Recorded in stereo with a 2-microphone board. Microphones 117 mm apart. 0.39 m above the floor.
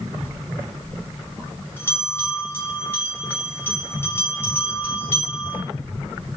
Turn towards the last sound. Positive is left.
turn(degrees=20)  # may be behind; listen again after turning